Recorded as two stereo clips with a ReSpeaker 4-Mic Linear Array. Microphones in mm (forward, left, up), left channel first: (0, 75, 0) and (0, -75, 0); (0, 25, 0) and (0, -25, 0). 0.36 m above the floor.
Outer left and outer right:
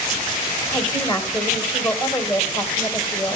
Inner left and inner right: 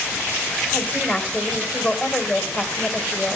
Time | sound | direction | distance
0.7 | a woman speaking | 30° left (ahead or behind) | 1.5 m